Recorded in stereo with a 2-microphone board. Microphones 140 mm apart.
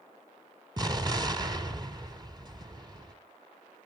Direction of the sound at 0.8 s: 30° right (ahead or behind).